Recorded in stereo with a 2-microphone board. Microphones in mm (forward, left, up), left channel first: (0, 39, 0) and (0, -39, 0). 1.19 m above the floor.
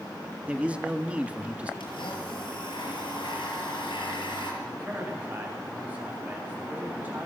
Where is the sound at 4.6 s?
20° right (ahead or behind), 10 m.